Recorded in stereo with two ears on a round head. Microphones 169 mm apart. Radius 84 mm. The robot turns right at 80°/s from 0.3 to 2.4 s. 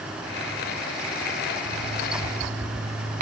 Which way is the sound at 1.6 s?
100° right.